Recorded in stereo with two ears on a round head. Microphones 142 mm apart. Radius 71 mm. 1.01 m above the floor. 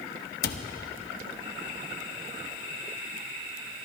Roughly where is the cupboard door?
Left.